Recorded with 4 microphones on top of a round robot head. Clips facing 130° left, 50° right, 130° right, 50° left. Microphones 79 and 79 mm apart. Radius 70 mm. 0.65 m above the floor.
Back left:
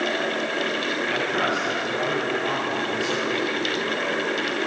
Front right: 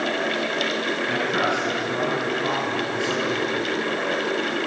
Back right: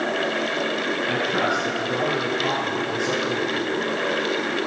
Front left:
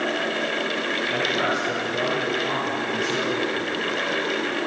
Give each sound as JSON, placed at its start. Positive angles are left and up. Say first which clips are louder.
{"t": 1.1, "sound": "a man speaking", "louder": "front right 1 dB, back right 1 dB", "azimuth_deg": -110, "distance_m": 7.0}